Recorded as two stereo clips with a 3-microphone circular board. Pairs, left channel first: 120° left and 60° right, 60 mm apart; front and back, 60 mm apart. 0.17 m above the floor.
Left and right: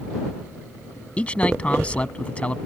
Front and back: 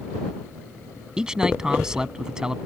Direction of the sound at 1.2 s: 125° left.